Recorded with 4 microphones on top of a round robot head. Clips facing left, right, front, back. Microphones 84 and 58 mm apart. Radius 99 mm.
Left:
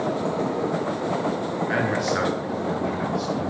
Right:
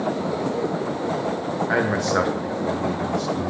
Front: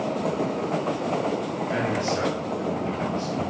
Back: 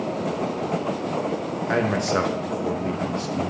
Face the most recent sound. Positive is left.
turn(degrees=-155)